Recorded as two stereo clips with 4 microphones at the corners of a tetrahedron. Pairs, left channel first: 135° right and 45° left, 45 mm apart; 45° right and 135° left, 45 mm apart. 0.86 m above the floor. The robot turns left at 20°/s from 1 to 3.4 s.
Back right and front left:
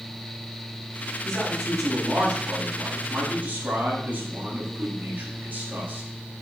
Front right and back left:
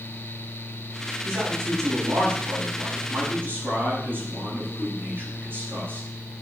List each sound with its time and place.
1.2 s a man speaking: 140° left, 7 m; by 6.1 s 95° left, 7 m